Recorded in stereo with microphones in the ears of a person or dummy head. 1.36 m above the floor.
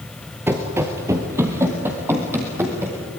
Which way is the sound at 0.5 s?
20° right (ahead or behind).